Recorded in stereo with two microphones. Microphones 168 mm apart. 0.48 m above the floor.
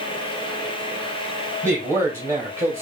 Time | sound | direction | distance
1.6 | a man speaking | 15° right (ahead or behind) | 2.5 m